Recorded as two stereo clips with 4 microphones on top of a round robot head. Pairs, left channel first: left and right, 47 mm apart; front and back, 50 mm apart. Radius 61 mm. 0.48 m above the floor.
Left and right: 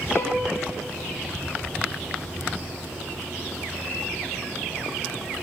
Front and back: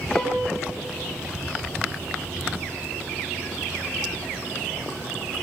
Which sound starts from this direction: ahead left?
A violin, at 0.1 s.